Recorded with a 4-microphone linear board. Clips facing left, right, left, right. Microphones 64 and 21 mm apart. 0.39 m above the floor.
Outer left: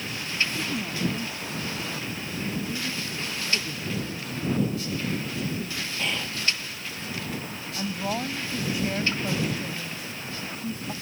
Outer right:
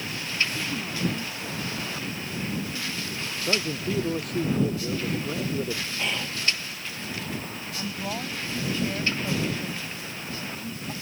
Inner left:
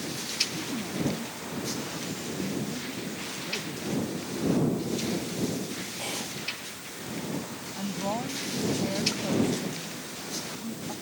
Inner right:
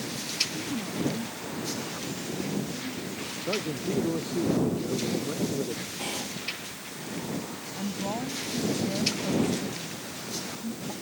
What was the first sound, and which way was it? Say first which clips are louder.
A woman speaking: outer left 1 dB, even; 5° left (ahead or behind).